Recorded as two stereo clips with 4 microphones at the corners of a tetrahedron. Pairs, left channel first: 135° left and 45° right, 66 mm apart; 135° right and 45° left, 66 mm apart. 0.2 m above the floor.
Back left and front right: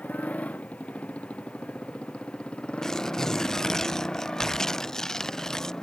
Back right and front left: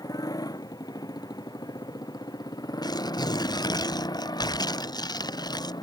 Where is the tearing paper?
145° right.